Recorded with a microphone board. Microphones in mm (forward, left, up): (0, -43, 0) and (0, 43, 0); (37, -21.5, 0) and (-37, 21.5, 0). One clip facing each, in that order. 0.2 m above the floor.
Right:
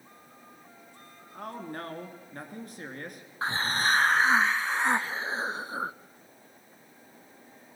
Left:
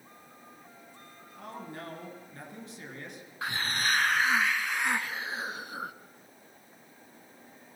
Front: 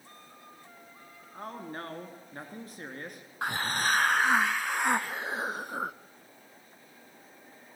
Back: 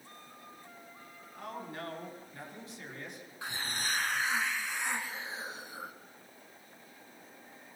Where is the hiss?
35° right, 0.6 m.